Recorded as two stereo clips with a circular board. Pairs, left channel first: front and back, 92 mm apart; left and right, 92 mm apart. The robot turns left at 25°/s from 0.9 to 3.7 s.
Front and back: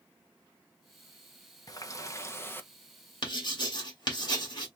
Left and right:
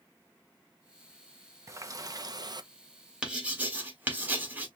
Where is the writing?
15° right, 1.5 m; by 4.7 s 25° right, 1.5 m.